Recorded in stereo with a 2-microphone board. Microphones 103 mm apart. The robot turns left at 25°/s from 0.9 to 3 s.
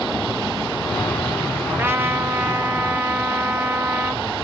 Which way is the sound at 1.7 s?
20° right (ahead or behind).